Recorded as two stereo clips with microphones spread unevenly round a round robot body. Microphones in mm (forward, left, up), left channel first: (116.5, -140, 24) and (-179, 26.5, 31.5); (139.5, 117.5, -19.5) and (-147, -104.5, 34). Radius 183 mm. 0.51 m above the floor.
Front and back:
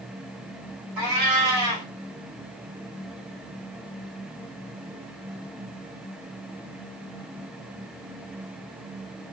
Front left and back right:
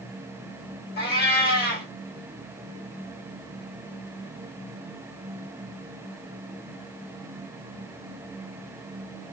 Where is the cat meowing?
105° left, 1.3 m.